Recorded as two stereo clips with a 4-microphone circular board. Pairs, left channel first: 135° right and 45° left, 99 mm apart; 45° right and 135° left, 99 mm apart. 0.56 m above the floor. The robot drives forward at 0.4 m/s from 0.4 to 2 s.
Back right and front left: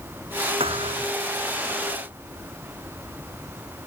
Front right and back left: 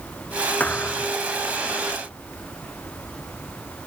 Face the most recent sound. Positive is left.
turn(degrees=30)